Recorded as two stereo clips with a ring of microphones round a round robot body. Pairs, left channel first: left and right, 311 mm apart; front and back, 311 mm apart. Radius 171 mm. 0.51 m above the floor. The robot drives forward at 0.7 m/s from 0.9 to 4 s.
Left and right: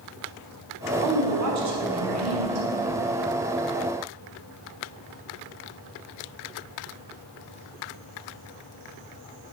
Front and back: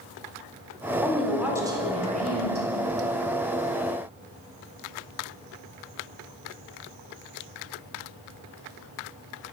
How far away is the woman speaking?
About 1.5 m.